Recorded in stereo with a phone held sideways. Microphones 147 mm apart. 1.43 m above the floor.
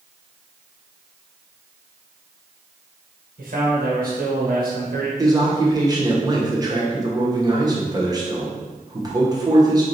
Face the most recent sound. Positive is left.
turn(degrees=-25)  # may be behind; listen again after turning